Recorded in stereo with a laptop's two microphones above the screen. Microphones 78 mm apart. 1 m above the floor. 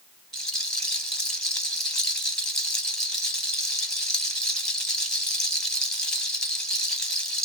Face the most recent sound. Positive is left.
turn(degrees=5)  # may be behind; listen again after turning